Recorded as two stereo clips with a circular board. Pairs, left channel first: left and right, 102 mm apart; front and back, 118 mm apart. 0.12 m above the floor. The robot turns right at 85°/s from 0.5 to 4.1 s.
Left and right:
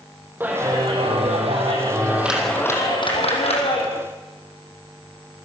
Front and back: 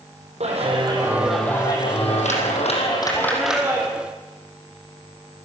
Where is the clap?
160° right, 4.5 m; by 3.9 s 125° left, 4.5 m.